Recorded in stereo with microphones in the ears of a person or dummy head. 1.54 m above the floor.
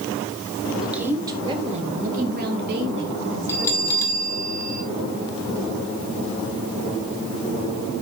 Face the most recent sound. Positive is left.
turn(degrees=15)  # may be behind; listen again after turning